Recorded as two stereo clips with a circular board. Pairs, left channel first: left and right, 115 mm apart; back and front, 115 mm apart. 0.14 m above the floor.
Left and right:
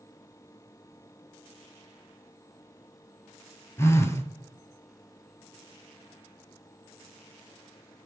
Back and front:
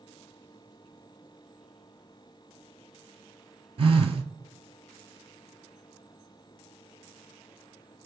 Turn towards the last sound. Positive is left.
turn(degrees=25)